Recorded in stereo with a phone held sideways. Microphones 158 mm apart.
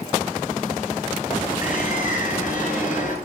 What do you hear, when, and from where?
1.6 s a bird: 65° left (ahead or behind), 6.5 m